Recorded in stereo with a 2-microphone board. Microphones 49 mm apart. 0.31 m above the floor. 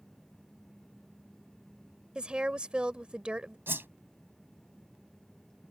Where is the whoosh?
50° right (ahead or behind).